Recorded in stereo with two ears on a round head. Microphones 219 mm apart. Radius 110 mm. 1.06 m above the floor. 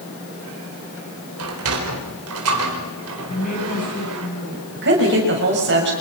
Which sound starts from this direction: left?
A woman speaking, at 3.3 s.